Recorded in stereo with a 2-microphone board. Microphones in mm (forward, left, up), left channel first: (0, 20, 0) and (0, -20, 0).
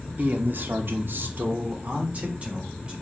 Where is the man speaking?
45° right (ahead or behind), 1.1 m; by 2.9 s 30° right (ahead or behind), 2 m.